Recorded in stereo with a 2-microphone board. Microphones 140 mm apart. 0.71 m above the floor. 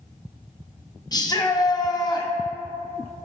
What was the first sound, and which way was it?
A shout, 30° left (ahead or behind).